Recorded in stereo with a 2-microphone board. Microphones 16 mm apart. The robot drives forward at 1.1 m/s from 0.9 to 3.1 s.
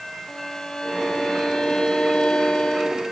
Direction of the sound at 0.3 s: 55° left (ahead or behind).